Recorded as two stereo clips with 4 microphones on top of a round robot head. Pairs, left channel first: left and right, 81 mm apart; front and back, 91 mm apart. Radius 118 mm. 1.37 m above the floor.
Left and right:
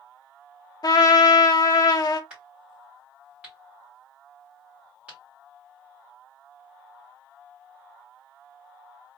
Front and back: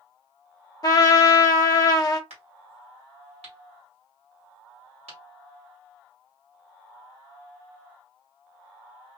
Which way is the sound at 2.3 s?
170° right.